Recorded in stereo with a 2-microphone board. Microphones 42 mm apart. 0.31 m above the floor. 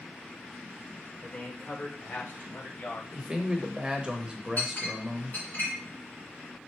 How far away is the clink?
About 2 m.